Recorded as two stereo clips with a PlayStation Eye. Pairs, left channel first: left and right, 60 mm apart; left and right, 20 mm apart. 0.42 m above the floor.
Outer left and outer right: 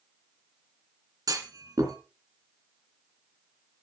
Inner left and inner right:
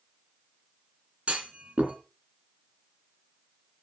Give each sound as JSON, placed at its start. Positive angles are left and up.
{"t": 1.3, "sound": "a clunk", "side_deg": -75, "distance_m": 2.5}